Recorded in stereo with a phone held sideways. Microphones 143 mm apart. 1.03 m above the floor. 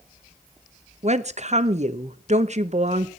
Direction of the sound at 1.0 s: 50° right (ahead or behind).